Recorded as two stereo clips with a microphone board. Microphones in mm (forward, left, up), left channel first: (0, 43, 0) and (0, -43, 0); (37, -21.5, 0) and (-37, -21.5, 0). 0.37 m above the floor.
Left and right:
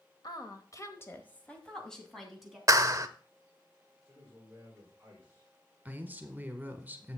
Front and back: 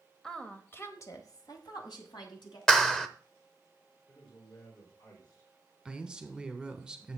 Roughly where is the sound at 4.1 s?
Ahead.